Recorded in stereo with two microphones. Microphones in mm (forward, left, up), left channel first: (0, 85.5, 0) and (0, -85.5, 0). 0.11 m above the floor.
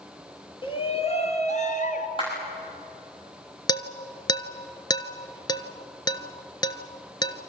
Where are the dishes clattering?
25° left (ahead or behind), 1.1 m.